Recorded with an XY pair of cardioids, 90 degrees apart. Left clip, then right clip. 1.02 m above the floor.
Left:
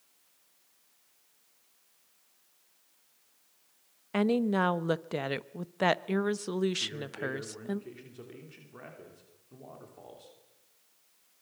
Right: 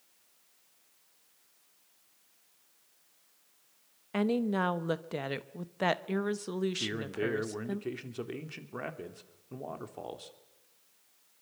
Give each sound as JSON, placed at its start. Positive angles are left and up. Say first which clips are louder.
{"t": 4.1, "sound": "a woman speaking", "louder": "left 3 dB", "azimuth_deg": 25, "distance_m": 1.0}
{"t": 6.8, "sound": "a man speaking", "louder": "right 1 dB", "azimuth_deg": -65, "distance_m": 3.0}